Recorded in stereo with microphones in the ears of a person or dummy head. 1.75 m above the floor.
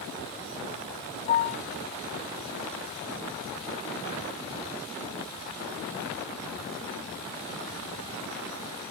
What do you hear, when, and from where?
1.3 s a piano: 35° left (ahead or behind), 1.9 m